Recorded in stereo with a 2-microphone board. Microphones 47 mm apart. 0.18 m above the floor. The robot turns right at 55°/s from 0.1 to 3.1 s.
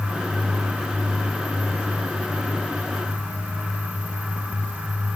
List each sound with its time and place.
Only background noise.